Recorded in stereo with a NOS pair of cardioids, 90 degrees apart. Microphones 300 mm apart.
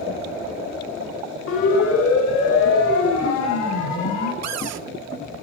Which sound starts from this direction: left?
A siren, at 1.5 s.